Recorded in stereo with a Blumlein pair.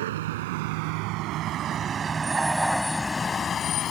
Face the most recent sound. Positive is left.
turn(degrees=30)